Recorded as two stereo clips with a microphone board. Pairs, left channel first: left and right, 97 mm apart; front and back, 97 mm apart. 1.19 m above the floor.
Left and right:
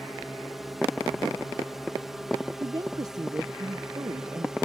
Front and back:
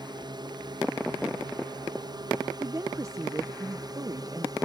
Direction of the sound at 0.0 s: Straight behind.